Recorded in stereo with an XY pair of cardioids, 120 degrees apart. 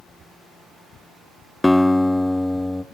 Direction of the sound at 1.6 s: 5° left.